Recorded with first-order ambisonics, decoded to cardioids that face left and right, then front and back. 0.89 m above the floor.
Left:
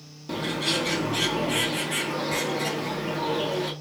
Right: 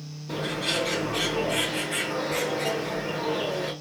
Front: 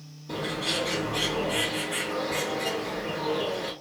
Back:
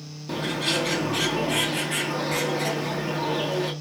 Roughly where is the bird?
Behind left.